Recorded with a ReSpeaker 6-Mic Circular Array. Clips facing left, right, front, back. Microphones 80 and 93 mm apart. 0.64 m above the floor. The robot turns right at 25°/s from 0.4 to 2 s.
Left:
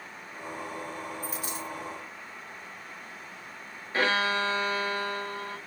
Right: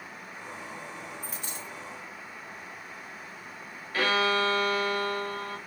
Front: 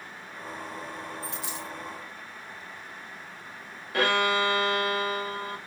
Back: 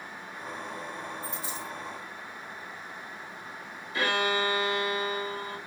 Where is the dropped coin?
Straight ahead, 1.8 m; by 1.7 s 10° left, 1.8 m.